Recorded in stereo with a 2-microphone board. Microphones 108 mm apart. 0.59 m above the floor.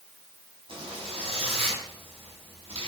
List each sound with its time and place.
0.7 s a zipper: 55° right (ahead or behind), 5.5 m